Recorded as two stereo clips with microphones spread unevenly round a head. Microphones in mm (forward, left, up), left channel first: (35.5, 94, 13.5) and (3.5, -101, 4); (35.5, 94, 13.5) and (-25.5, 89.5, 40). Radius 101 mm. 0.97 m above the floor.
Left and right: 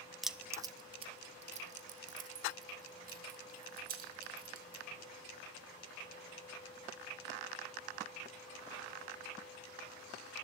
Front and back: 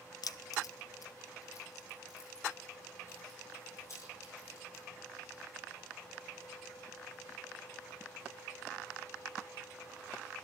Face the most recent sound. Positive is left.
turn(degrees=-60)